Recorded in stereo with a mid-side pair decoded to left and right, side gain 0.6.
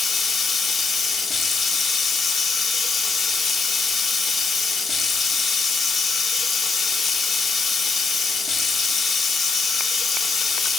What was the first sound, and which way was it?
Running water, 35° left.